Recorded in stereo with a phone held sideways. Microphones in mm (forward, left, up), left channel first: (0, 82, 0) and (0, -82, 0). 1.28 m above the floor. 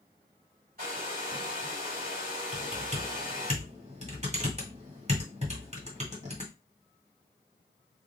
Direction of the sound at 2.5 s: 45° right (ahead or behind).